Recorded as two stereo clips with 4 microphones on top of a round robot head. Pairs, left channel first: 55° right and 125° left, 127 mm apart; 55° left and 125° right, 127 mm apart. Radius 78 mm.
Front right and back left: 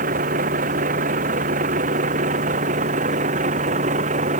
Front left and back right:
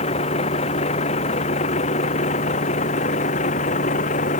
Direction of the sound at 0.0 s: 100° left.